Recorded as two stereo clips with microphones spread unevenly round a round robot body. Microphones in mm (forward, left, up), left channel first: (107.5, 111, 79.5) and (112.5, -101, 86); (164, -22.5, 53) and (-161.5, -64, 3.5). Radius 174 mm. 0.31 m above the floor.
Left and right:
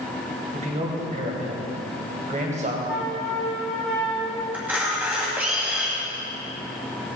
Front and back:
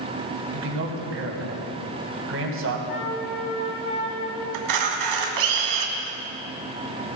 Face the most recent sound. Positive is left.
turn(degrees=-170)